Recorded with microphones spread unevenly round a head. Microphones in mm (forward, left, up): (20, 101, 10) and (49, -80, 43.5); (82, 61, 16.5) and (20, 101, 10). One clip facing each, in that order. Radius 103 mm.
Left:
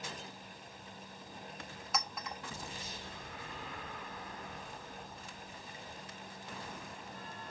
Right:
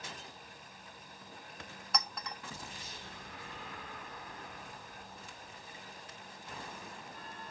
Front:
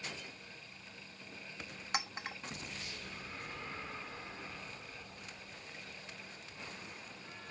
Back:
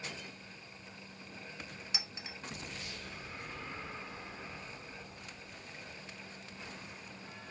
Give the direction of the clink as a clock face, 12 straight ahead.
12 o'clock.